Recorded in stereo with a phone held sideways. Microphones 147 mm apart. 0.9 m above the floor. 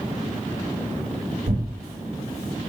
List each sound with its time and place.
1.5 s tearing paper: 85° right, 1.9 m